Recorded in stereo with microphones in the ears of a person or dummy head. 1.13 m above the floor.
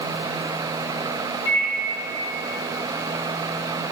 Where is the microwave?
80° left, 1.4 m.